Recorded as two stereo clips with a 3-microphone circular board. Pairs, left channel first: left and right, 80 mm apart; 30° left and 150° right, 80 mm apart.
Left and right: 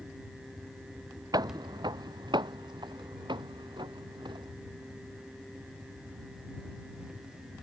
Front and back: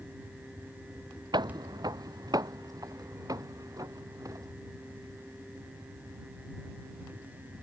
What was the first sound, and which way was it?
Footsteps, 125° right.